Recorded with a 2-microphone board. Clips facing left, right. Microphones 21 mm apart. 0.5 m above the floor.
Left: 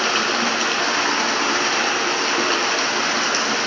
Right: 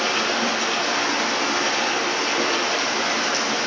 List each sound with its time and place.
0.0 s running water: 35° left (ahead or behind), 3.5 m